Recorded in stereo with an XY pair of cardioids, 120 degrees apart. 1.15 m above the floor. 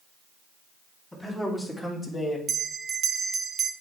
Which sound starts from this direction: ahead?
A man speaking, at 1.1 s.